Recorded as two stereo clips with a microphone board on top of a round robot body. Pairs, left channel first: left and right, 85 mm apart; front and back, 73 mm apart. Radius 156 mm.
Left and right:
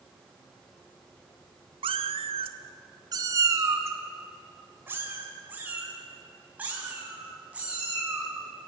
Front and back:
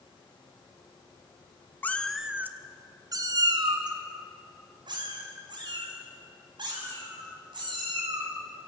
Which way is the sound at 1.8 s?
65° right.